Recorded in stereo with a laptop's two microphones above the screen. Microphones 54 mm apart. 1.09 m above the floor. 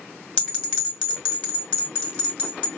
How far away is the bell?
About 2 m.